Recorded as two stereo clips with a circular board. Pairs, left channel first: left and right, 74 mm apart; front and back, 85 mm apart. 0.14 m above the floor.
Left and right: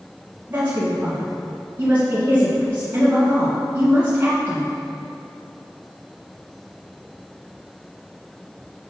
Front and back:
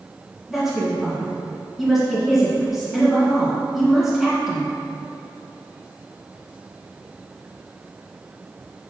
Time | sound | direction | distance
0.5 | a woman speaking | 95° right | 1.6 m